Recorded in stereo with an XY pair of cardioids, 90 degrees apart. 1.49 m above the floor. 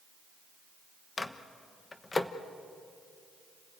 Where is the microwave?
30° left, 1.2 m.